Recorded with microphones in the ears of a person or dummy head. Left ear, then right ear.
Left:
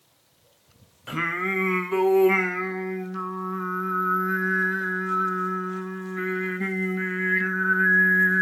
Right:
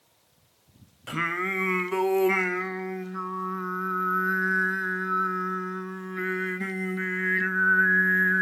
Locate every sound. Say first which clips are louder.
1.1 s singing: left 2 dB; 5° right (ahead or behind), 0.9 m